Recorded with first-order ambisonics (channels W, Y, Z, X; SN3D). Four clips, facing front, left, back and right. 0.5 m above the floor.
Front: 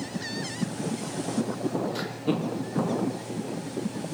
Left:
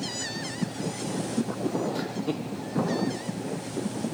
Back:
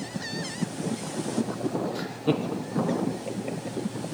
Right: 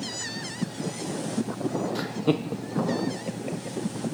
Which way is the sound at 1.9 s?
30° right.